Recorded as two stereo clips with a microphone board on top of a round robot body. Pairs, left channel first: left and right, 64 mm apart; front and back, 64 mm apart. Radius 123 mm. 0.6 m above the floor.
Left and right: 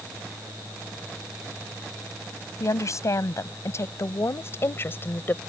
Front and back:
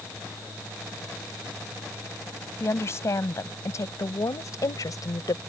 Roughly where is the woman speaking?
Ahead left.